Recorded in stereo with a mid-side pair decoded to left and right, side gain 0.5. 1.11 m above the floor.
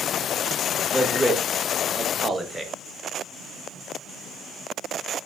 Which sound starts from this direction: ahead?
A man speaking, at 0.9 s.